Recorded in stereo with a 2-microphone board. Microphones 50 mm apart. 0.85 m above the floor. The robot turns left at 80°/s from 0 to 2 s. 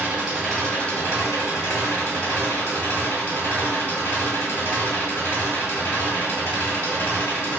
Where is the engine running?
140° right, 1.8 m; by 7.6 s 60° left, 1.8 m.